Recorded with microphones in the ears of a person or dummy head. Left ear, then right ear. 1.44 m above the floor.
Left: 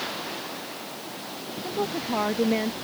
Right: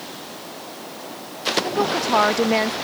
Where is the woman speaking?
50° right (ahead or behind).